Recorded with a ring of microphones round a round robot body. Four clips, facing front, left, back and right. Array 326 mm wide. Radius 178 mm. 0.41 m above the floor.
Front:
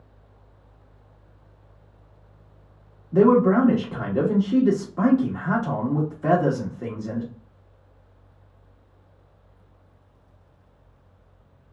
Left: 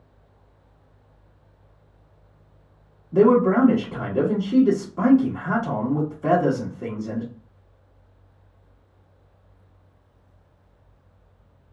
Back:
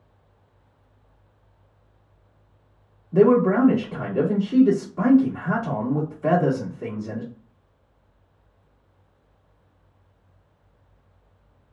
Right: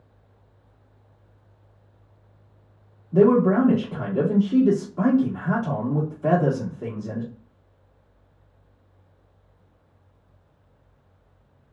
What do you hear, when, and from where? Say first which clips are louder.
3.1 s a man speaking: left 1 dB, even; 10° left, 1.4 m